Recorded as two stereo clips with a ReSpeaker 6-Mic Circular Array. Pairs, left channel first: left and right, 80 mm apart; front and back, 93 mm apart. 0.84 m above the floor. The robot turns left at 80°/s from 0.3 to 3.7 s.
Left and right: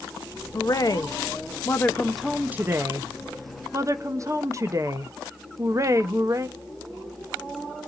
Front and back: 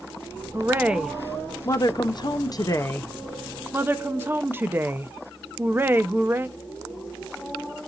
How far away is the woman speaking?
About 0.6 m.